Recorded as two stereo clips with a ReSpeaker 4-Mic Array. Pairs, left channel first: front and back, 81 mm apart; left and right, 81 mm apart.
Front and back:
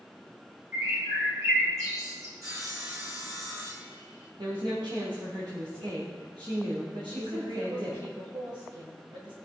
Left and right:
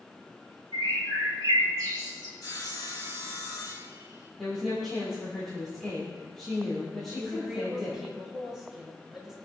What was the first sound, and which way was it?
A bird, 135° right.